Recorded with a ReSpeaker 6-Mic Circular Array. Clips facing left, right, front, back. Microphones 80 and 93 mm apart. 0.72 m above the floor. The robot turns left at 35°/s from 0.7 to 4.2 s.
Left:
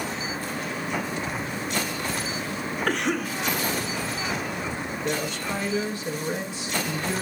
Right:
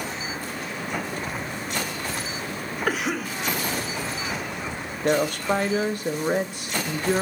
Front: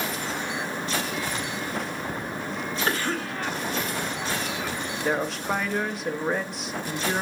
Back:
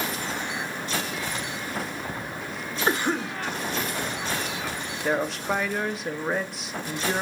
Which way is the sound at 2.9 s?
165° right.